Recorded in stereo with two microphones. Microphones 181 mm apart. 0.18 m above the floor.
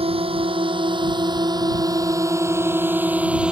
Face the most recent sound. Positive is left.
turn(degrees=-5)  # may be behind; listen again after turning